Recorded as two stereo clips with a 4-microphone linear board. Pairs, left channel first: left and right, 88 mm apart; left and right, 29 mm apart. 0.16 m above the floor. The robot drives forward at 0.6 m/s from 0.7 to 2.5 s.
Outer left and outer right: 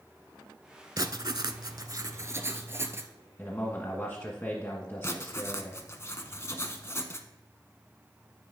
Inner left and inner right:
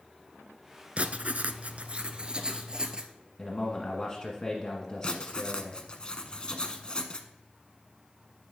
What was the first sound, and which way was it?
Writing, 50° right (ahead or behind).